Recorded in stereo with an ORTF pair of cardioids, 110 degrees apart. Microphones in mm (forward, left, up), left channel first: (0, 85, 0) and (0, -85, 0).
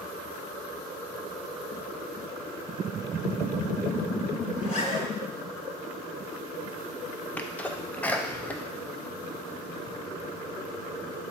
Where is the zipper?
45° left, 2 m.